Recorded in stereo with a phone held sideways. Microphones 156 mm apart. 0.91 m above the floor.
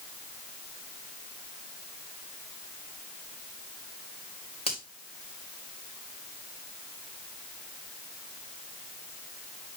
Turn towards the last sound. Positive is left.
turn(degrees=40)  # may be behind; listen again after turning